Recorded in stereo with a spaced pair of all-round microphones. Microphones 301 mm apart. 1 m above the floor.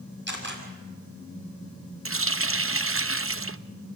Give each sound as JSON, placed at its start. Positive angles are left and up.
{"t": 0.3, "sound": "a camera shutter", "side_deg": -35, "distance_m": 6.0}
{"t": 2.0, "sound": "a running tap", "side_deg": -45, "distance_m": 0.6}